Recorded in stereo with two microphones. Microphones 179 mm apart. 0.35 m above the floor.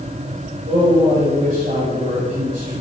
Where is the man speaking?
50° right (ahead or behind), 1.9 m.